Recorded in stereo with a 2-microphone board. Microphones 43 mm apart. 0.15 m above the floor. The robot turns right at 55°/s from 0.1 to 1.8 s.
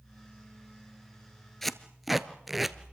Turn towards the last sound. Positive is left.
turn(degrees=-5)  # may be behind; listen again after turning